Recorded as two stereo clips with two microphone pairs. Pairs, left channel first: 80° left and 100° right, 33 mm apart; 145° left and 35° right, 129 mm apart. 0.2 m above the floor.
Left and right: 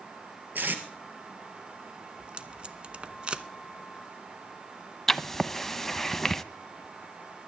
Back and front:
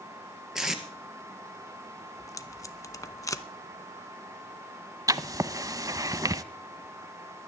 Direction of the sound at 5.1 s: 10° left.